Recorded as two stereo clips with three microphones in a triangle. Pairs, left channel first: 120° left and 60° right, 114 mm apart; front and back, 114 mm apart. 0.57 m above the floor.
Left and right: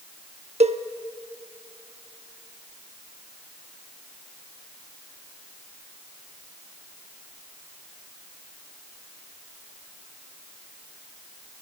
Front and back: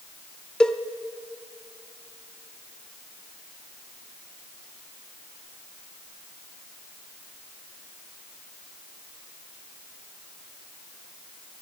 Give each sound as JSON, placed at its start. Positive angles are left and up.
{"t": 0.6, "sound": "a cowbell", "azimuth_deg": -80, "distance_m": 0.5}